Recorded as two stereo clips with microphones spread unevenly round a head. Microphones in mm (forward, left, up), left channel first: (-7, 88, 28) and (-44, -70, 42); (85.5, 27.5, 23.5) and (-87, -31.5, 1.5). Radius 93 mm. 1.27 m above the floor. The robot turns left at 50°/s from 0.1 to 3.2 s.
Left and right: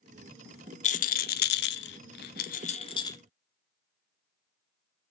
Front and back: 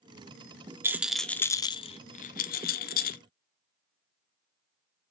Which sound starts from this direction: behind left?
A rattle, at 0.8 s.